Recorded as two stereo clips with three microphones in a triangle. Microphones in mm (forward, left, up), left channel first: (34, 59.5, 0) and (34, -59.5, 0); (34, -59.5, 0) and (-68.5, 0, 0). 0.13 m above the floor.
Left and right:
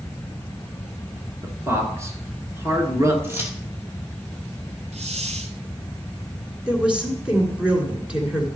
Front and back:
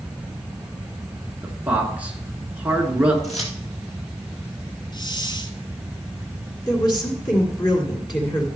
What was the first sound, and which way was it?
A man speaking, 140° right.